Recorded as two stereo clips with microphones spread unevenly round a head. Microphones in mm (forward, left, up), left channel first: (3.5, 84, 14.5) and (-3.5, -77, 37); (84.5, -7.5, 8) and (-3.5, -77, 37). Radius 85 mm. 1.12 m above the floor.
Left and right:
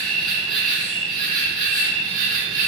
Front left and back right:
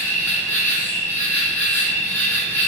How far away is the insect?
About 0.9 m.